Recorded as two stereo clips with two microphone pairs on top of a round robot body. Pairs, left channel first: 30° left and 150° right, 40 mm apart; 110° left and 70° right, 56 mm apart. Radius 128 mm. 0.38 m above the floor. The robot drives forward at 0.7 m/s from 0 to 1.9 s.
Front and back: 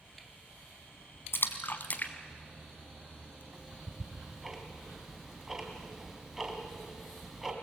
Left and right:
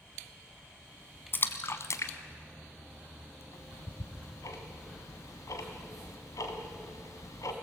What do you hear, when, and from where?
1.3 s a splash: 55° left, 1.2 m; by 3.4 s 75° left, 1.0 m
3.5 s ticking: 125° left, 2.5 m